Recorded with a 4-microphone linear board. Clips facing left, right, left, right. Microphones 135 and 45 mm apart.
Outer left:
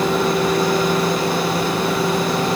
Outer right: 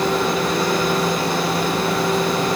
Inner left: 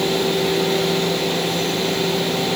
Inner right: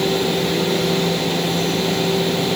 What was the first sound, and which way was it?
Only background noise.